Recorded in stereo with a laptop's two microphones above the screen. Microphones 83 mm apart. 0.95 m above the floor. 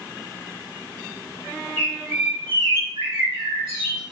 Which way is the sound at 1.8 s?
70° right (ahead or behind).